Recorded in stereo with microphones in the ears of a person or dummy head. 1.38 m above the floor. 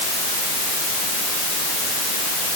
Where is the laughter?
No laughter in this recording.